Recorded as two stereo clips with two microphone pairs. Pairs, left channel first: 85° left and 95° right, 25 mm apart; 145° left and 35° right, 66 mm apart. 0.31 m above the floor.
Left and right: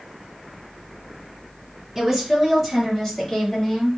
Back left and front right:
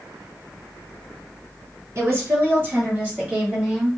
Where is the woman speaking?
20° right, 1.9 m; by 4.0 s 50° left, 1.8 m.